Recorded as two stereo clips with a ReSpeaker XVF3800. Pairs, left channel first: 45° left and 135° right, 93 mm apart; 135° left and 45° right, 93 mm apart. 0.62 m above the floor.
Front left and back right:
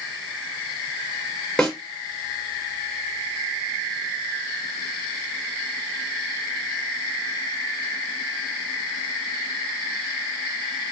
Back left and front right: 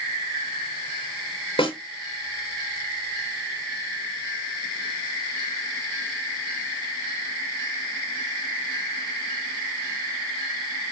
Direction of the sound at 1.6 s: 130° left.